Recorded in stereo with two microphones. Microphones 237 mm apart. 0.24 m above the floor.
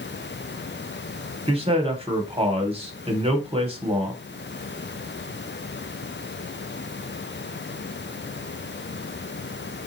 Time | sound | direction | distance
1.5 | a man speaking | 25° right (ahead or behind) | 1.1 m